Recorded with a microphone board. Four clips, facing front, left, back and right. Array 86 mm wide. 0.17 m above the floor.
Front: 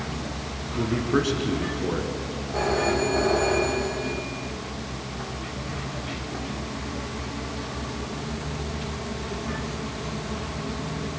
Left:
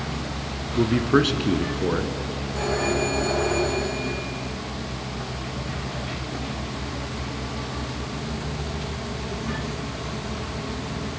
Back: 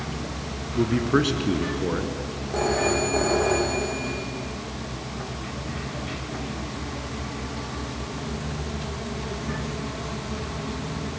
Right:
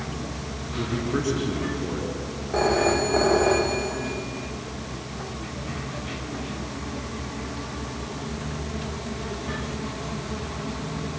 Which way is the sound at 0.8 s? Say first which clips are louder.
Left 8 dB, back 2 dB; 110° left.